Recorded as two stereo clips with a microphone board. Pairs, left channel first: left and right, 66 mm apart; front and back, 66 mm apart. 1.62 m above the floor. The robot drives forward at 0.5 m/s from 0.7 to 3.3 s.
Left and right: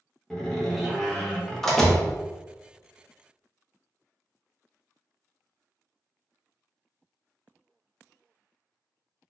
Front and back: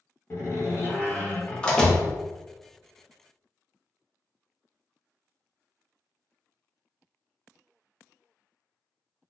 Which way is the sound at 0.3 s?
10° left.